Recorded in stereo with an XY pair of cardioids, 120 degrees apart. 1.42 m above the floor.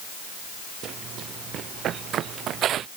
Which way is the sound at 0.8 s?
60° right.